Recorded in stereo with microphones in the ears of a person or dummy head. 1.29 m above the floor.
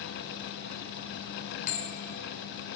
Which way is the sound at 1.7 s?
45° left (ahead or behind).